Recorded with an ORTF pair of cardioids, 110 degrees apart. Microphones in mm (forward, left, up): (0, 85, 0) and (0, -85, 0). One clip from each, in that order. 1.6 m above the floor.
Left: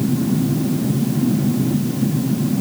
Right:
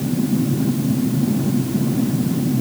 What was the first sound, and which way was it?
Only background noise.